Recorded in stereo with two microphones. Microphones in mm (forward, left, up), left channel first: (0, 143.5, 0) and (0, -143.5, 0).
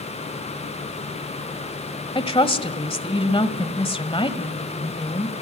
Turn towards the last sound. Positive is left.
turn(degrees=20)  # may be behind; listen again after turning